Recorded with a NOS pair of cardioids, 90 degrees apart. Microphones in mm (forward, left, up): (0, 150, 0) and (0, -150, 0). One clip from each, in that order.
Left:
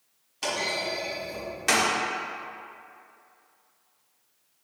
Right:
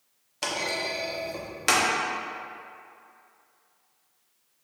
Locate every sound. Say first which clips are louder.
0.4 s a clunk: even; 30° right, 0.9 m